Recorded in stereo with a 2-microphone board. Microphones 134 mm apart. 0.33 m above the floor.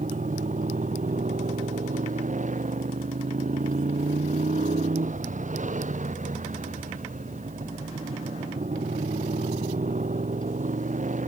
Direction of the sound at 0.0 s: 70° right (ahead or behind).